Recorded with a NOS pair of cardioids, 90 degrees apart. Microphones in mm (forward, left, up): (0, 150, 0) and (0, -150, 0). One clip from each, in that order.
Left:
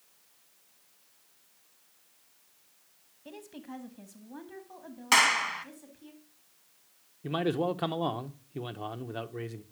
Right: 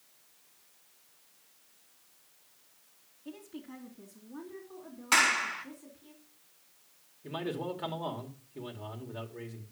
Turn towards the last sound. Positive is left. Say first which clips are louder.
# left 7 dB
turn(degrees=50)